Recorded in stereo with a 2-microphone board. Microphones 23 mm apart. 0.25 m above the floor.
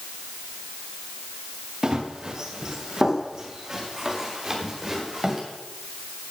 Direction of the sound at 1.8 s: 25° right (ahead or behind).